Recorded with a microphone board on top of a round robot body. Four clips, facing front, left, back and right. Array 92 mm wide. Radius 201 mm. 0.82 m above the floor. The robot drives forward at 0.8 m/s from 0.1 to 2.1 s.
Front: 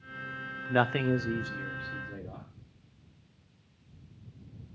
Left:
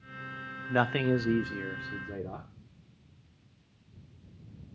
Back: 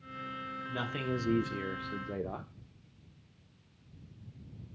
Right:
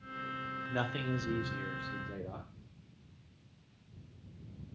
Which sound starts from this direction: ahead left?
A man speaking, at 0.7 s.